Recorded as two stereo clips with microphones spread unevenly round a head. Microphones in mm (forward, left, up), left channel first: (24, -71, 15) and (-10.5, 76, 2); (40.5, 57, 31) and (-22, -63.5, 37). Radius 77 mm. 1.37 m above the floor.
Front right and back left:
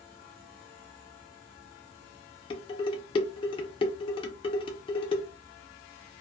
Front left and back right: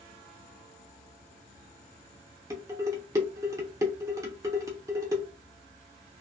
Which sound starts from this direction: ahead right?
Dishes clattering, at 2.5 s.